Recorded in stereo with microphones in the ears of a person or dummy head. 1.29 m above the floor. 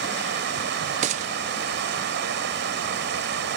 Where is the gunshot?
35° right (ahead or behind).